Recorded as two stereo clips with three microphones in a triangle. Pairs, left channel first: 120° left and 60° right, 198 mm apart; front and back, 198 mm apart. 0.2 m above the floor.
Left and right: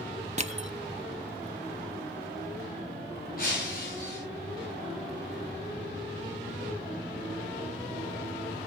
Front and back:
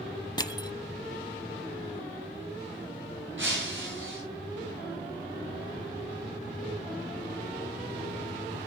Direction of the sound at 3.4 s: 160° left.